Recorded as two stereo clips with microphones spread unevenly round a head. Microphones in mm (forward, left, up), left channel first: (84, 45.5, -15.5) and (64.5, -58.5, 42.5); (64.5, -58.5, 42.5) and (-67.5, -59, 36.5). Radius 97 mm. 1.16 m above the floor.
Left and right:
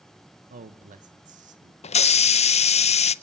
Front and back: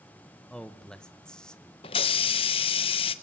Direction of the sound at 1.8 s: 60° left.